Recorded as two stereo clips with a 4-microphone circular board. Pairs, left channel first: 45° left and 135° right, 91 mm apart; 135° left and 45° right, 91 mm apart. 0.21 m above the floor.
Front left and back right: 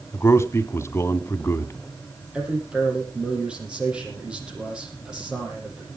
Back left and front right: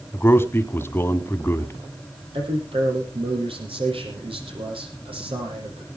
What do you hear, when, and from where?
0.1 s a man speaking: 85° left, 1.3 m
2.3 s a man speaking: 55° right, 6.5 m